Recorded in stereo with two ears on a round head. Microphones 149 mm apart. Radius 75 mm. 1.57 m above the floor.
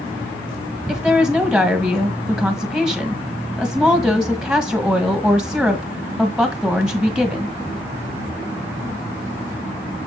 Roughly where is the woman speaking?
Centre.